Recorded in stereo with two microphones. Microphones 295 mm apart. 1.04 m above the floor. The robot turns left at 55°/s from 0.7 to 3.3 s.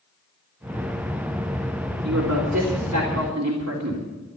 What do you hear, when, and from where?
2.0 s a woman speaking: 55° right, 3 m; by 4.1 s 125° right, 3 m